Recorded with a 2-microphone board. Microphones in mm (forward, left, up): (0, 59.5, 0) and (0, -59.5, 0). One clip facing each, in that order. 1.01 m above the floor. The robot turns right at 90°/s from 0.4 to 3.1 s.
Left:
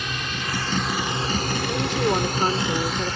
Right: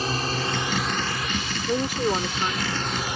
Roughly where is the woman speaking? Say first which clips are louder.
Even; ahead right.